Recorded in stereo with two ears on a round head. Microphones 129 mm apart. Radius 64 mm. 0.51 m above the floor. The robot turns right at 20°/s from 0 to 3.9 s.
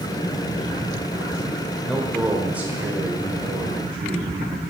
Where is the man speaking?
Straight behind, 1.4 m; by 4.4 s 140° right, 1.4 m.